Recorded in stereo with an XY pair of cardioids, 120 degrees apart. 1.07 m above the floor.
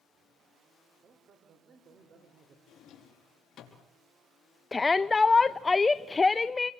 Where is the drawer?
50° left, 5 m.